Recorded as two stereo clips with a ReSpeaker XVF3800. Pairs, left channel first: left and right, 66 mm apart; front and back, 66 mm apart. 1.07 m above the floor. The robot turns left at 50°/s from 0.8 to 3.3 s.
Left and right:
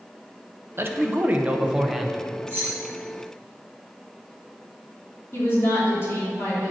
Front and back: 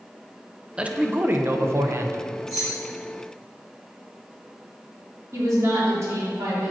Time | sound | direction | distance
0.8 | a man speaking | 115° right | 0.7 m
2.5 | keys jangling | 140° right | 2 m
5.3 | a woman speaking | 140° left | 3 m